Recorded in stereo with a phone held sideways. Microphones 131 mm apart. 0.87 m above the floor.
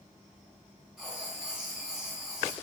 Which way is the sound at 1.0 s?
5° right (ahead or behind).